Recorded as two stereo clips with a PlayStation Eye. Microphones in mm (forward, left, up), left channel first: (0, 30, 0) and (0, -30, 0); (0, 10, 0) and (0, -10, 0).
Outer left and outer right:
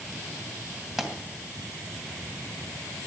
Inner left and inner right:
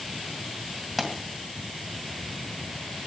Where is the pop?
10° right (ahead or behind), 2 m.